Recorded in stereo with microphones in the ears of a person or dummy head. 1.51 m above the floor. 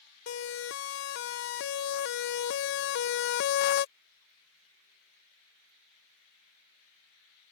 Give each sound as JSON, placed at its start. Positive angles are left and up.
{"t": 0.3, "sound": "a siren", "side_deg": 70}